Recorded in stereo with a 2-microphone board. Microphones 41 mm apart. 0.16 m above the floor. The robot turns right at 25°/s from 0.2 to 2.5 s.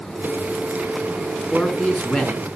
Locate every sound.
1.5 s a man speaking: 10° left (ahead or behind), 2.5 m; by 2.5 s 30° left (ahead or behind), 2.5 m